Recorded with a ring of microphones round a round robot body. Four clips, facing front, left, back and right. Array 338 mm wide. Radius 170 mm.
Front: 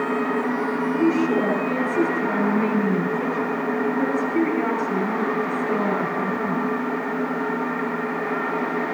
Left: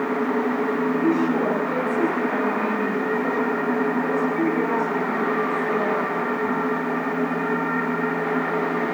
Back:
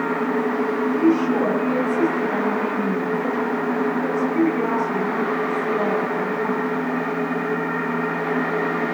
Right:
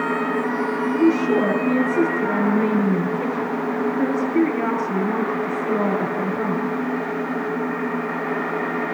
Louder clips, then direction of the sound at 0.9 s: Right 6 dB, back 2 dB; 60° right.